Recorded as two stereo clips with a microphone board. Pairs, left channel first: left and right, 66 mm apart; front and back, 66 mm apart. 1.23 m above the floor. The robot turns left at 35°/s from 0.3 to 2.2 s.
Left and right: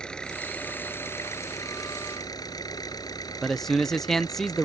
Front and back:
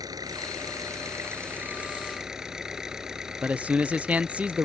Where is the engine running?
165° left; by 4.7 s 100° left.